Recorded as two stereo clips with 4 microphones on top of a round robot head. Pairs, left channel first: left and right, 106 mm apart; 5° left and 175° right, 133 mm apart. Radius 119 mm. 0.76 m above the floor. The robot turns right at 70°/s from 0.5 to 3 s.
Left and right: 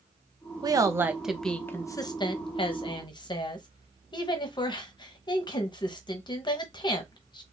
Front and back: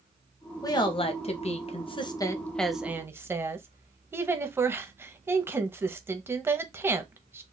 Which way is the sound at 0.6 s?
50° right.